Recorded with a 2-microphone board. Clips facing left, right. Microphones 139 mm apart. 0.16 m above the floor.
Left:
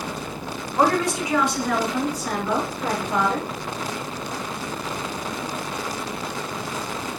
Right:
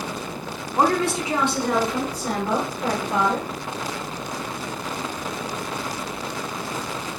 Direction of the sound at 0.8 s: 25° right (ahead or behind).